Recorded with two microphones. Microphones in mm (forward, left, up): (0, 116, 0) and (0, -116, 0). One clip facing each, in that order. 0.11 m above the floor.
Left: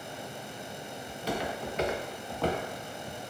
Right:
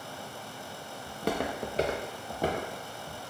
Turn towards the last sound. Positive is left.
turn(degrees=5)  # may be behind; listen again after turning